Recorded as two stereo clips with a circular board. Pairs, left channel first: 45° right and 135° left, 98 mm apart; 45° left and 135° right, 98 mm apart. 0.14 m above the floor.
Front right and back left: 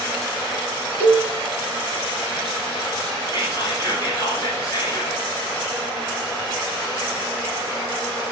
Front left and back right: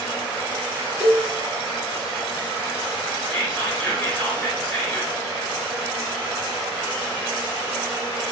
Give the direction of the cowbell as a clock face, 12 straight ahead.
2 o'clock.